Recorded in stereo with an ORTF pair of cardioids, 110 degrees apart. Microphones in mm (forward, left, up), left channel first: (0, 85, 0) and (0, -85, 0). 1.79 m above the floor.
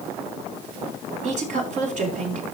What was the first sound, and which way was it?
A woman speaking, 45° right.